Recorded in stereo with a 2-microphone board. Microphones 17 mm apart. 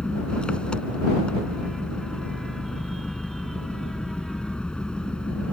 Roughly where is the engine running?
Left.